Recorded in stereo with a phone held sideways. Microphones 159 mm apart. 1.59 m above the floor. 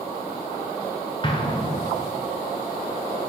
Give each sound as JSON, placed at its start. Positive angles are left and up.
{"t": 1.2, "sound": "an explosion", "side_deg": 30, "distance_m": 0.8}